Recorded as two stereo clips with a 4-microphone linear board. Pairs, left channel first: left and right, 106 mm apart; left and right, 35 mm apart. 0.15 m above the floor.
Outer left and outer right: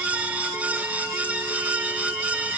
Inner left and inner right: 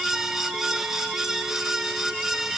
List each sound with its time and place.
Only background noise.